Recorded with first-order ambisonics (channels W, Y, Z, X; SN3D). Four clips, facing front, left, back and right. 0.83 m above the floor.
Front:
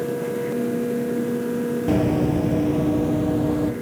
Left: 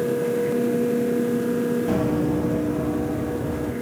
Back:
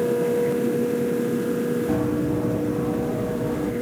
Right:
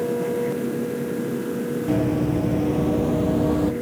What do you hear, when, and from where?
1.9 s running footsteps: straight ahead, 1.1 m; by 3.7 s 70° right, 1.7 m